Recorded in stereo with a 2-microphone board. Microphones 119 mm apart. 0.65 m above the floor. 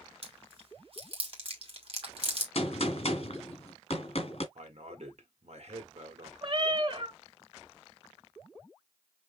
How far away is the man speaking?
About 1.8 m.